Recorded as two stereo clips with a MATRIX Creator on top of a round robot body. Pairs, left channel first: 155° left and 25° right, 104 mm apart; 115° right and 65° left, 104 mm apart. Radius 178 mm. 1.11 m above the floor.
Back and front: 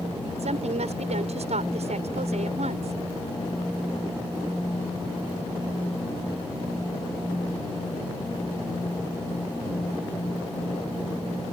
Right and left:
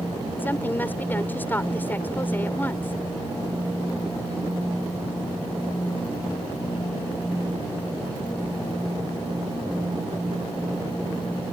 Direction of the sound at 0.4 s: 40° right.